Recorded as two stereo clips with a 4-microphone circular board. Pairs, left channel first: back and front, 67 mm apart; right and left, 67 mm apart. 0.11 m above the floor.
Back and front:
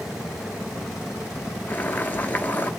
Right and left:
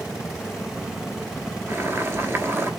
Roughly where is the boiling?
Behind left.